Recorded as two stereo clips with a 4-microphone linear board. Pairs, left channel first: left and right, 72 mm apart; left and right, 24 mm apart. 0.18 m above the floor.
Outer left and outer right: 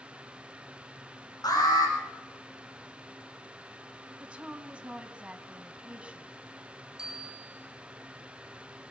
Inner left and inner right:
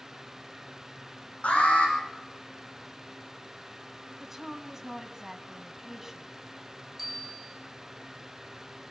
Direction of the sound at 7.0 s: 10° right (ahead or behind).